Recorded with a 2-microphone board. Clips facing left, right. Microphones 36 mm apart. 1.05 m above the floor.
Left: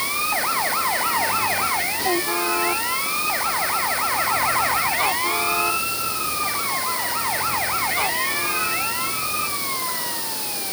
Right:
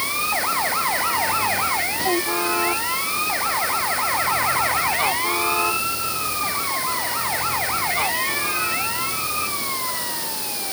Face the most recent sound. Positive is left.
No sound to turn to.